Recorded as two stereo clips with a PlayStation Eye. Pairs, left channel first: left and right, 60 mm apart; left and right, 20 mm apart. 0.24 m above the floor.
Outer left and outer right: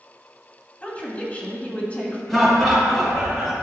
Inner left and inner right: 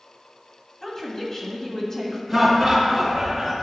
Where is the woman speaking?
25° left (ahead or behind), 1.6 m.